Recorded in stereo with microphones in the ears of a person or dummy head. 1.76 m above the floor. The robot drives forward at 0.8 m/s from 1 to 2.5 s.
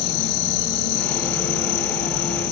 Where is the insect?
70° left (ahead or behind), 1.8 m; by 2.5 s 50° left (ahead or behind), 2 m.